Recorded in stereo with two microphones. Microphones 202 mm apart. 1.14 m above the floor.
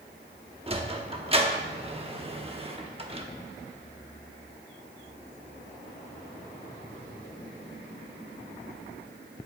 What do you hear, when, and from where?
0.7 s a sliding door: 30° right (ahead or behind), 0.9 m